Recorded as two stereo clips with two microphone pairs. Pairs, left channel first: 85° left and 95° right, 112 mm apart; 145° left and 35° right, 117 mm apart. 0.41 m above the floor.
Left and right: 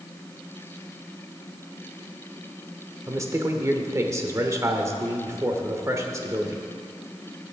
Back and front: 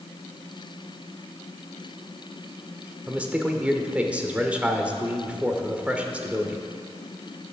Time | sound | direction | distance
3.1 | a man speaking | 100° right | 1.0 m